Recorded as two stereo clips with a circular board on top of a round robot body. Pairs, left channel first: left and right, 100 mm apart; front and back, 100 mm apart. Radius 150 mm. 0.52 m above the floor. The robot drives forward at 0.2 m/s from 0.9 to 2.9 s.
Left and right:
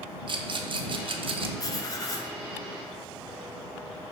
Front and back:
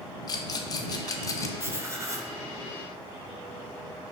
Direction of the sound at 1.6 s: 125° left.